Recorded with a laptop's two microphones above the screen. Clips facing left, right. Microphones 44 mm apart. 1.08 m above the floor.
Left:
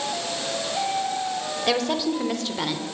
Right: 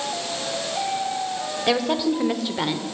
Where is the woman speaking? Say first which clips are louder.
Right 2 dB; 5° right (ahead or behind), 4 m; by 2.8 s 10° right (ahead or behind), 3 m.